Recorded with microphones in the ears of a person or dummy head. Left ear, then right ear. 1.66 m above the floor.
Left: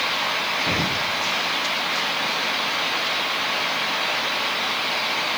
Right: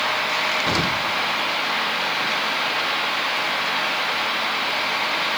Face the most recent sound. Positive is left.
turn(degrees=-50)  # may be behind; listen again after turning